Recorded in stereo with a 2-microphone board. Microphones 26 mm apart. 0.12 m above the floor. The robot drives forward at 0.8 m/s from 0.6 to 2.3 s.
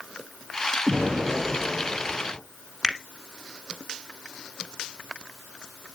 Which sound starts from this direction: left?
A finger snap, at 2.8 s.